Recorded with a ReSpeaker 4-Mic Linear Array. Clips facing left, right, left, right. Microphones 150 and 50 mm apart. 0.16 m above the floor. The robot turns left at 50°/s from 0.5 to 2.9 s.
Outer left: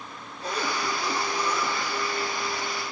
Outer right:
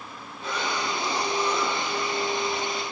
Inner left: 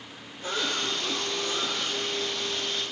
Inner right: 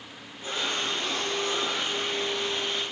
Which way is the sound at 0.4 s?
40° left.